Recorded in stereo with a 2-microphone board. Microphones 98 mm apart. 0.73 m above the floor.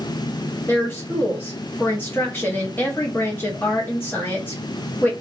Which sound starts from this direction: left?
A woman speaking, at 0.7 s.